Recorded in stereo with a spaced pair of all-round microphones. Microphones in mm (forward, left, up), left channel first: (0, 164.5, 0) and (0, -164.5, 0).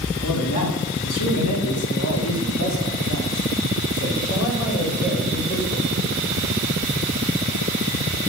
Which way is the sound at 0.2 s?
75° left (ahead or behind).